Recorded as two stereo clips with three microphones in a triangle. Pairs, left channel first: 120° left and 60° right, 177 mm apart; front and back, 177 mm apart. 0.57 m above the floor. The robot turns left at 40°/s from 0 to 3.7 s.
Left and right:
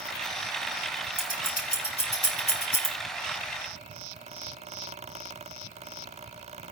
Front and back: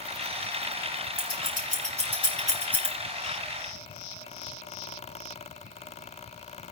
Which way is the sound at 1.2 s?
160° left.